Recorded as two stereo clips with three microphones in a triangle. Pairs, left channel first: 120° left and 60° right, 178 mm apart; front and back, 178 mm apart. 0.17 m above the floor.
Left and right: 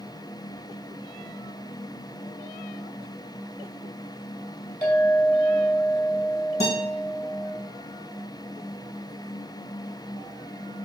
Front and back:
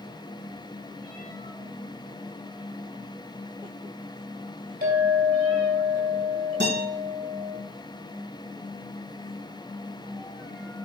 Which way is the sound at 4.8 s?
155° right.